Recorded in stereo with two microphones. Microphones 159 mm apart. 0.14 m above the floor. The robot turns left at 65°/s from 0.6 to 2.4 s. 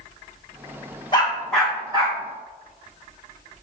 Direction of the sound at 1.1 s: 30° left (ahead or behind).